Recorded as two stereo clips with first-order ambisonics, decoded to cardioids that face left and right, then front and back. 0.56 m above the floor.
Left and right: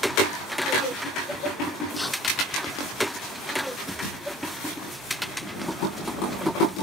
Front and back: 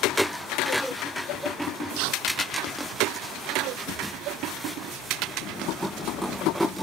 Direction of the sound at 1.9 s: 175° left.